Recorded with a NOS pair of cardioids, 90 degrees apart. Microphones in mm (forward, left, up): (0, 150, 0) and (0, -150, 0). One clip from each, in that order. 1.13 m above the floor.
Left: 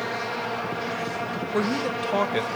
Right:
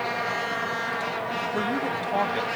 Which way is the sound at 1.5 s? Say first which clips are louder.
Left 5 dB; 35° left.